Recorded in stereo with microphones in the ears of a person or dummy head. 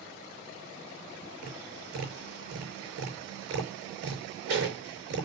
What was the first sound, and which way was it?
Tapping, 70° right (ahead or behind).